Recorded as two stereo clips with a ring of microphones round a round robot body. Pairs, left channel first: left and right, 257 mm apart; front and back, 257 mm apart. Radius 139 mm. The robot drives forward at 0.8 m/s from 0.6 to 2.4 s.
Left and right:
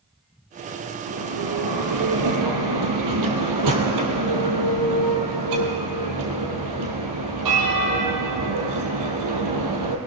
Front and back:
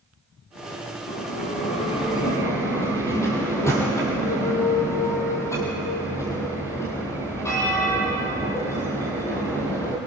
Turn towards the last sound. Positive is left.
turn(degrees=-80)